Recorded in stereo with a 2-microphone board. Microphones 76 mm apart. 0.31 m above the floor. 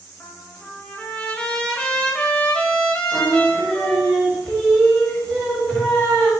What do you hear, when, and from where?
0.2 s a trumpet: 15° left (ahead or behind), 1.1 m
3.1 s singing: 20° left (ahead or behind), 1.7 m